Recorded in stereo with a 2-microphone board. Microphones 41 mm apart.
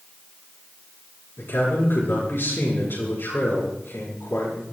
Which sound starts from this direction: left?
A man speaking, at 1.4 s.